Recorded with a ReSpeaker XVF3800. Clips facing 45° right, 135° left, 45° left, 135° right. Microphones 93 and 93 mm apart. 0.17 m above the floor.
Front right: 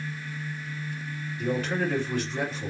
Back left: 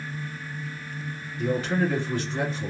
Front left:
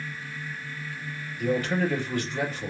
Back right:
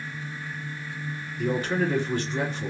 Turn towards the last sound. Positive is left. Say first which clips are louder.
# back left 3 dB, even
turn(degrees=-140)